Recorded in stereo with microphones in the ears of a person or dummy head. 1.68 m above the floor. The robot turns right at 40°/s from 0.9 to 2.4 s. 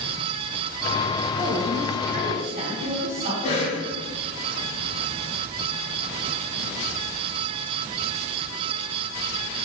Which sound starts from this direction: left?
A cough, at 3.4 s.